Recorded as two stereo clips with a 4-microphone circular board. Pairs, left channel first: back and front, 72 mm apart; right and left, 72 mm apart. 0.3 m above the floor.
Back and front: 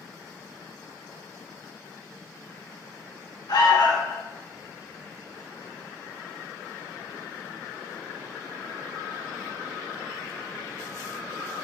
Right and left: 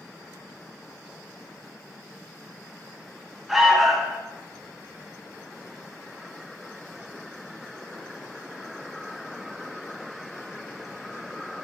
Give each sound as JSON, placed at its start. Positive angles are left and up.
{"t": 3.5, "sound": "an alarm", "azimuth_deg": 175, "distance_m": 1.7}